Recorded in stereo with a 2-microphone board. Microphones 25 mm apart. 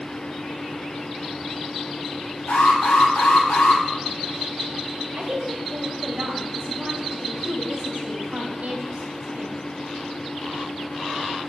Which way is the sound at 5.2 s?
75° right (ahead or behind).